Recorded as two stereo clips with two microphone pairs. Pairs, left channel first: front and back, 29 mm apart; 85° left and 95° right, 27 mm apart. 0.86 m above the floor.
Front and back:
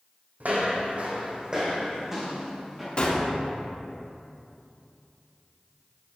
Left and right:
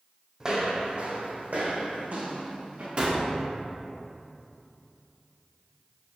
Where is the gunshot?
50° right, 2 m.